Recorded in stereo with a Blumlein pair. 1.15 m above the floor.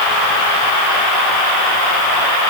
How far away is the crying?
I don't hear crying.